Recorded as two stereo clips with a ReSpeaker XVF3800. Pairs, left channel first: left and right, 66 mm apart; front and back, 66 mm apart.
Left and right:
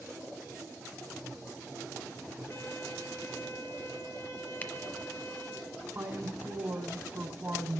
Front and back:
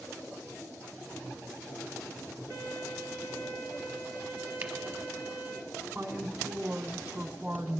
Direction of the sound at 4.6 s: 135° left.